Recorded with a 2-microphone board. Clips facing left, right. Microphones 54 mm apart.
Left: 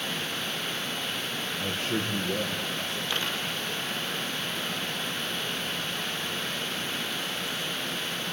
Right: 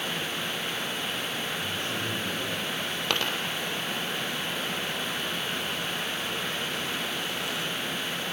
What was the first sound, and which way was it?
A man speaking, 45° left (ahead or behind).